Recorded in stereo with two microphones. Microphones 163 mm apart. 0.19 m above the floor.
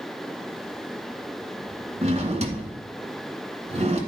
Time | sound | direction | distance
2.0 | a drawer | 40° right (ahead or behind) | 1.5 m